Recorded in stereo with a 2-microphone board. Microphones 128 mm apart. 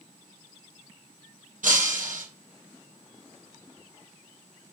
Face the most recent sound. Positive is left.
turn(degrees=-75)  # may be behind; listen again after turning